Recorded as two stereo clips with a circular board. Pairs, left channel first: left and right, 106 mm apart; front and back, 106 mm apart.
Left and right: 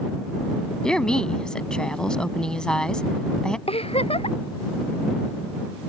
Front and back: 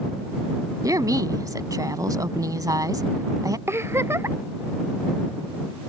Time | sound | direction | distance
0.8 | a woman speaking | 165° left | ?
3.7 | a giggle | 115° left | ?